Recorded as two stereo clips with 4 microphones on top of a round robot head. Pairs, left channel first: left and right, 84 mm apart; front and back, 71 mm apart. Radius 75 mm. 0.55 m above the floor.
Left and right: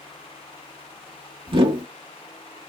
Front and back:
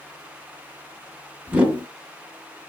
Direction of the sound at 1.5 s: 105° right.